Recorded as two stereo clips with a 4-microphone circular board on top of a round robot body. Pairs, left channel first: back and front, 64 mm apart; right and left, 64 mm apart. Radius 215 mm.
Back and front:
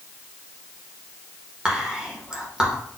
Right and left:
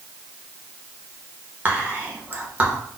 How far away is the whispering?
About 1.1 m.